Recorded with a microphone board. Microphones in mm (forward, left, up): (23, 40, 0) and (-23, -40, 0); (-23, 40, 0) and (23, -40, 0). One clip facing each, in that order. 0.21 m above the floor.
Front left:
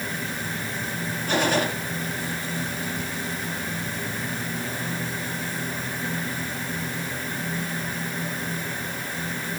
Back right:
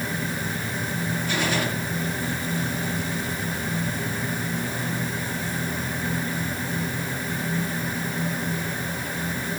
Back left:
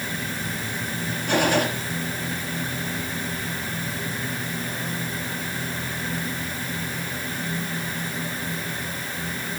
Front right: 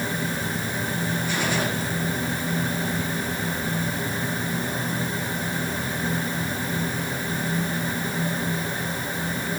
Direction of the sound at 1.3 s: 95° left.